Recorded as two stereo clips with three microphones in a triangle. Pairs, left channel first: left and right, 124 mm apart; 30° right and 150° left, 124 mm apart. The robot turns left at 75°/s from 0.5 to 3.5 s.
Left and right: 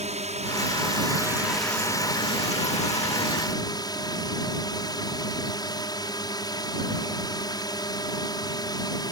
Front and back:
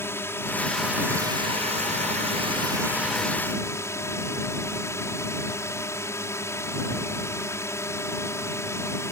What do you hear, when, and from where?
0.0 s a drone: 100° right; by 9.1 s 35° left